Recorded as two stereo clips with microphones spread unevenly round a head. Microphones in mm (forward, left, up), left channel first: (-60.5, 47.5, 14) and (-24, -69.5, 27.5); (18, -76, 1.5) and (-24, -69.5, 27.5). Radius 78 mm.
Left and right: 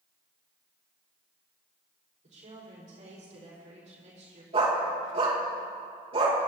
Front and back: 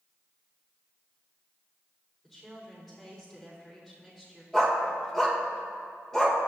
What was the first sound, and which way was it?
A woman speaking, 95° right.